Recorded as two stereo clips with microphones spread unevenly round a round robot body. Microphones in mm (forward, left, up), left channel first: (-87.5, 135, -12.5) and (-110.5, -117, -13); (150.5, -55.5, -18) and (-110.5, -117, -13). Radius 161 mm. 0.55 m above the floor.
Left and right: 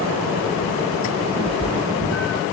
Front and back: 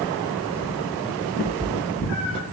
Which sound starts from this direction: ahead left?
A cat meowing, at 1.4 s.